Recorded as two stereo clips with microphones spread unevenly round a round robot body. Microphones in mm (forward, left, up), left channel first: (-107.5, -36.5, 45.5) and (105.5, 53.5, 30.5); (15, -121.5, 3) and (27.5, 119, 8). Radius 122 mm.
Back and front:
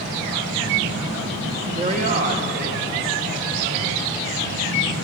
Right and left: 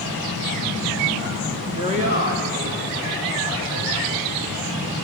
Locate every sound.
1.8 s a woman speaking: 35° left, 1.2 m; by 4.6 s 65° left, 4 m